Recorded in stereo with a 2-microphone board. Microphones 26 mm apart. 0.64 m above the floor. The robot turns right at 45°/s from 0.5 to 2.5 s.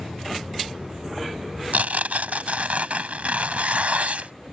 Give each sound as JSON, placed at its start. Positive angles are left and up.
{"t": 1.7, "sound": "tearing paper", "azimuth_deg": -100}